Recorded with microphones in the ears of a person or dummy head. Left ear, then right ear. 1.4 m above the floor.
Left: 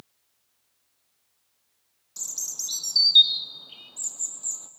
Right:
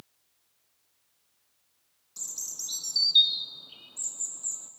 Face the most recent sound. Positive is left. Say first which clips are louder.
# left 5 dB
turn(degrees=10)  # may be behind; listen again after turning